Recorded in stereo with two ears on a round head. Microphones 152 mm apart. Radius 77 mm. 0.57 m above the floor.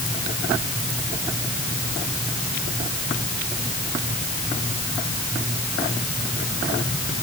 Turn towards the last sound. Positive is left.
No sound to turn to.